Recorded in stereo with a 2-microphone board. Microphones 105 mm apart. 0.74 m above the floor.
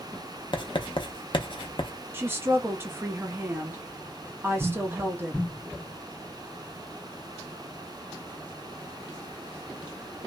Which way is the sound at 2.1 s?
20° right (ahead or behind).